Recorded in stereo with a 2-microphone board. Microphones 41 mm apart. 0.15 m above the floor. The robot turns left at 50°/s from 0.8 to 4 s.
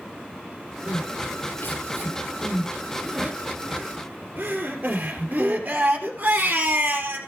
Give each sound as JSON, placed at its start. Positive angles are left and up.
{"t": 0.9, "sound": "crying", "side_deg": 60, "distance_m": 3.0}